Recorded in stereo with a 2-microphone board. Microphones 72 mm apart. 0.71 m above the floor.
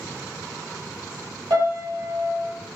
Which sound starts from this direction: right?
A piano, at 1.5 s.